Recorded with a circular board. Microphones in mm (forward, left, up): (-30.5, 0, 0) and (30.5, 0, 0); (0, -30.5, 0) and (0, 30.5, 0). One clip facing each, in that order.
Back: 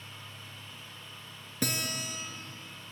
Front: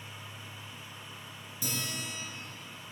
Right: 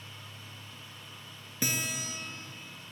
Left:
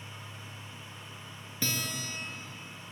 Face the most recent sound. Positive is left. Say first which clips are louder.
# back 4 dB, right 1 dB
turn(degrees=-160)